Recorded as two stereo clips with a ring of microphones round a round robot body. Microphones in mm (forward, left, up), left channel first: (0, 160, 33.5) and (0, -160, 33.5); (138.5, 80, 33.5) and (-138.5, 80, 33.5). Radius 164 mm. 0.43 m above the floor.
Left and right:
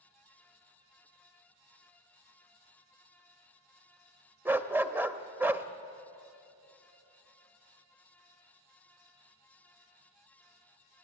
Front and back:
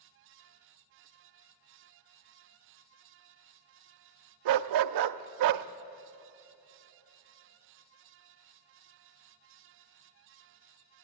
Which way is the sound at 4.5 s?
175° right.